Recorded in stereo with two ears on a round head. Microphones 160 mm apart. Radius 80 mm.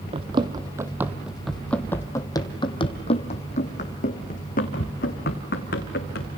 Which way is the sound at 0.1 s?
30° right (ahead or behind).